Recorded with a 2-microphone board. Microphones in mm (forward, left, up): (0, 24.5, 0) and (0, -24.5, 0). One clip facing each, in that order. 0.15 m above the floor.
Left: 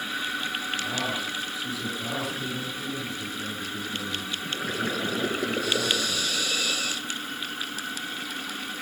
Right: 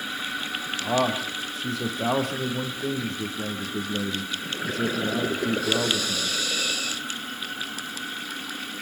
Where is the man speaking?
55° right (ahead or behind), 5.5 m.